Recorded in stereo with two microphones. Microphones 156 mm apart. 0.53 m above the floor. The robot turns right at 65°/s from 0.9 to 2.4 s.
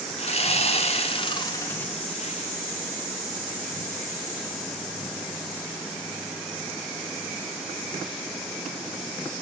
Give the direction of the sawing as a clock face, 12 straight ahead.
9 o'clock.